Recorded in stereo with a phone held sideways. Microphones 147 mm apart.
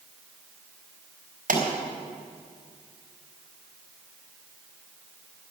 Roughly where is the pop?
Right.